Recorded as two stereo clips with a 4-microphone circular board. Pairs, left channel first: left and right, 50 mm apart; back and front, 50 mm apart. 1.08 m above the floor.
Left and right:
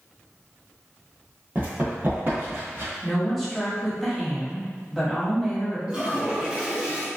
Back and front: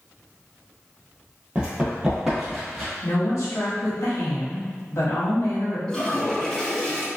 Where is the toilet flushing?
120° right, 0.8 m.